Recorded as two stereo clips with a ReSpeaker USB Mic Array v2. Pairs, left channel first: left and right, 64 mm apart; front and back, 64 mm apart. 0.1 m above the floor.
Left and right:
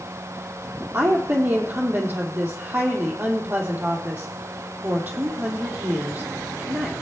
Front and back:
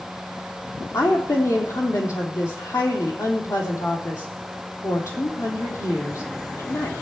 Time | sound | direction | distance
0.9 | a woman speaking | 30° right | 3 m